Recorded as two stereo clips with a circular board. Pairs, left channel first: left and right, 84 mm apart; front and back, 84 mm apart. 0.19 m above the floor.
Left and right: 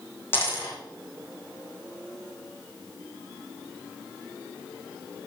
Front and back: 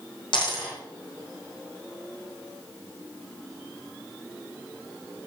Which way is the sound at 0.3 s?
25° left.